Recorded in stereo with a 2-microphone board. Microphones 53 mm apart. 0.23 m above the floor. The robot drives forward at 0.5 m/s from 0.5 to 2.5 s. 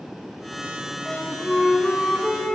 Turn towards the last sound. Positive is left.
turn(degrees=10)  # may be behind; listen again after turning